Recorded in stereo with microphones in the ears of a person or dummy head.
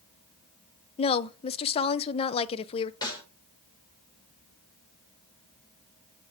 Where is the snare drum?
20° left (ahead or behind), 6 m.